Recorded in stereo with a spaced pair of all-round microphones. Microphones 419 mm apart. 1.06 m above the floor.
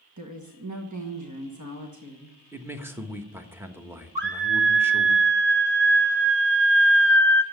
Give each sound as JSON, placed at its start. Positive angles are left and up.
{"t": 0.2, "sound": "a woman speaking", "side_deg": -45, "distance_m": 1.4}
{"t": 2.5, "sound": "a man speaking", "side_deg": -5, "distance_m": 1.2}
{"t": 4.2, "sound": "a scream", "side_deg": -75, "distance_m": 1.6}